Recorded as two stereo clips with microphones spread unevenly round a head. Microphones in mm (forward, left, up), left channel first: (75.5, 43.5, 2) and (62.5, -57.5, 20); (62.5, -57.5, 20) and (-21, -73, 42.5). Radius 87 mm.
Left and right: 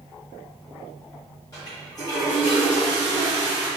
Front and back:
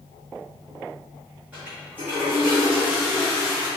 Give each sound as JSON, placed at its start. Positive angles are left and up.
{"t": 1.5, "sound": "a toilet flushing", "azimuth_deg": 140, "distance_m": 0.8}